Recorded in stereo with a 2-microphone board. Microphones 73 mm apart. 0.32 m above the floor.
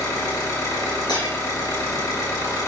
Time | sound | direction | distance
0.0 | an engine running | 50° left (ahead or behind) | 1.1 m
1.1 | breaking glass | 75° left (ahead or behind) | 2 m